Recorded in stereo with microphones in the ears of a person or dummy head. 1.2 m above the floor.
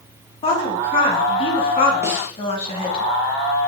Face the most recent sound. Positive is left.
turn(degrees=-15)  # may be behind; listen again after turning